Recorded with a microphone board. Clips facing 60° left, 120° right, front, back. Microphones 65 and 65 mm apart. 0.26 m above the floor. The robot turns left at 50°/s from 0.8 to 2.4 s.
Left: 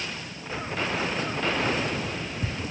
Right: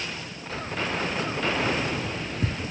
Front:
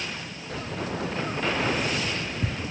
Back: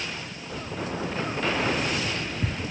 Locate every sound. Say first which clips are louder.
0.5 s keys jangling: even, front 1 dB; 10° right, 2.5 m; by 2.7 s 90° right, 2.5 m